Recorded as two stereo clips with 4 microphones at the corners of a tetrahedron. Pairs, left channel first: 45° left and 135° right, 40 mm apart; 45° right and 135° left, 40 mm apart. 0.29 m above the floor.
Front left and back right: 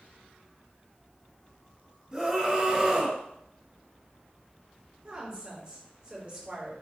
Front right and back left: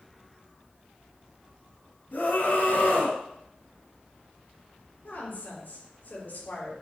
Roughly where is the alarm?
I don't hear an alarm.